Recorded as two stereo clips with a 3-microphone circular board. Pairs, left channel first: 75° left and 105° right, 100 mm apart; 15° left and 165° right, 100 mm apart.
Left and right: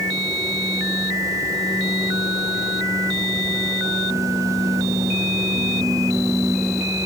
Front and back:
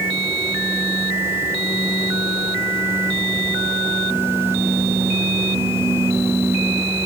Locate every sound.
Only background noise.